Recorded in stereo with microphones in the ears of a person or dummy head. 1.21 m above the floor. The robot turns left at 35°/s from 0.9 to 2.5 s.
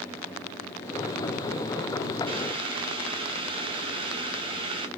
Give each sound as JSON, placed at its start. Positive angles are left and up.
{"t": 2.3, "sound": "boiling", "side_deg": -30, "distance_m": 0.7}